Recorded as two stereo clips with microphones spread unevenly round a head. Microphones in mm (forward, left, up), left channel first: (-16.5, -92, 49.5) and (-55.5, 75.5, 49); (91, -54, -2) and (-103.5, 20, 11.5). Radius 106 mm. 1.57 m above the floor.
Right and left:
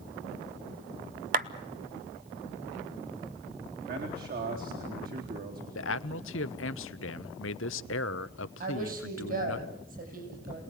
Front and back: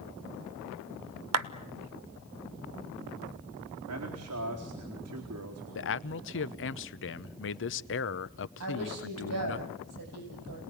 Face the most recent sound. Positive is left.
turn(degrees=140)